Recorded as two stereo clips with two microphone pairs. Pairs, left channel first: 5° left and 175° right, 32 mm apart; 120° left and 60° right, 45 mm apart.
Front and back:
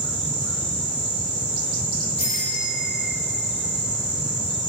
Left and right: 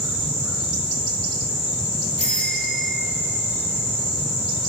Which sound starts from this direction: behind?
A bicycle bell, at 2.2 s.